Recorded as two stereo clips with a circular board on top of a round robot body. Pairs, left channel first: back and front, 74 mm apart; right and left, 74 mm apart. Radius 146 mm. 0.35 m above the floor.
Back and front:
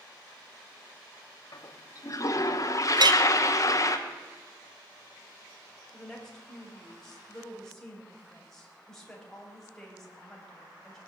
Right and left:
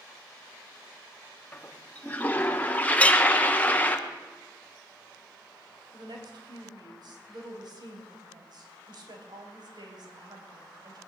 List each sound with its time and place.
1.5 s a toilet flushing: 155° right, 1.5 m
3.0 s a clink: 15° right, 1.0 m
5.9 s a woman speaking: 95° left, 4 m